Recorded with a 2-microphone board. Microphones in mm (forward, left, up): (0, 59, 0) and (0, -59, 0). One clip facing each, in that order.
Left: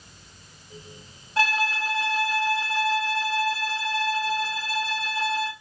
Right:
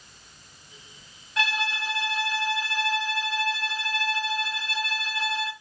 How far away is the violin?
About 0.8 m.